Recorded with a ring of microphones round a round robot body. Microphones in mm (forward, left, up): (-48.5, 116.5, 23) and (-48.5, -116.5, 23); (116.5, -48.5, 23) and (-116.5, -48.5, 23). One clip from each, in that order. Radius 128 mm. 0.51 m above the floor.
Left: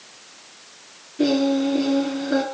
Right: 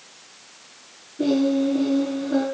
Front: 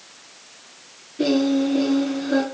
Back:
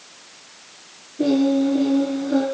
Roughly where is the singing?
Ahead left.